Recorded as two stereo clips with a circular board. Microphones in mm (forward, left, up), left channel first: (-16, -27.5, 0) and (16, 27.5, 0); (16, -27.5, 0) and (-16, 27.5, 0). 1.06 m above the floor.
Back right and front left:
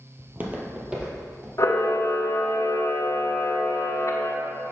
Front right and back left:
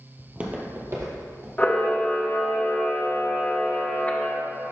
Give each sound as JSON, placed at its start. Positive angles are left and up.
{"t": 0.2, "sound": "footsteps", "azimuth_deg": 45, "distance_m": 1.1}
{"t": 1.6, "sound": "a camera shutter", "azimuth_deg": -125, "distance_m": 0.7}